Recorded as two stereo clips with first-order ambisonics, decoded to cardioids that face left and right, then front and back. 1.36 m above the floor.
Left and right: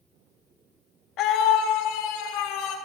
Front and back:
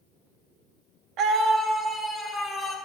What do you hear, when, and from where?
1.2 s a scream: 135° left, 1.0 m; by 2.8 s 80° left, 2 m